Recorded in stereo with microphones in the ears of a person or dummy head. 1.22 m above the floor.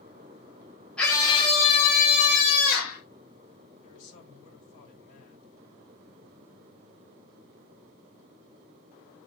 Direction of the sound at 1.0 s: 5° left (ahead or behind).